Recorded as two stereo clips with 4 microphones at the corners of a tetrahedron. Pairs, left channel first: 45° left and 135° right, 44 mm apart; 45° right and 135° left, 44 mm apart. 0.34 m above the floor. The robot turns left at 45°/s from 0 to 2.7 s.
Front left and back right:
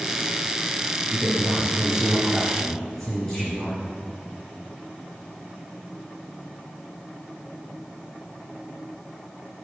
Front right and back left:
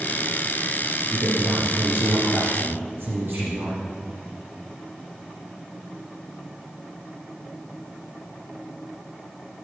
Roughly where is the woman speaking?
Behind.